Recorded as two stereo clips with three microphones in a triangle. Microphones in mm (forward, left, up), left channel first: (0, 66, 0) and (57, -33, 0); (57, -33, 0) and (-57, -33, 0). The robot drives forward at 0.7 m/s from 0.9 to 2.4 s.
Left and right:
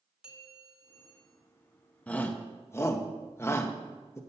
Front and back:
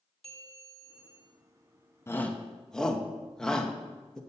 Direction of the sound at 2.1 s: 50° left.